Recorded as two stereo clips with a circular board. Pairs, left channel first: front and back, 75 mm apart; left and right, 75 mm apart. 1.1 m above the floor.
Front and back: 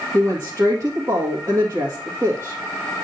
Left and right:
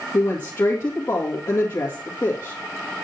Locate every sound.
0.1 s a woman speaking: 130° left, 2 m